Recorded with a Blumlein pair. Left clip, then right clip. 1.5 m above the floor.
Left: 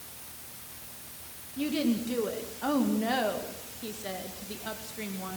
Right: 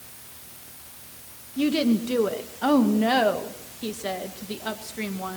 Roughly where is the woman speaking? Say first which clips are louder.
Right 7 dB; right.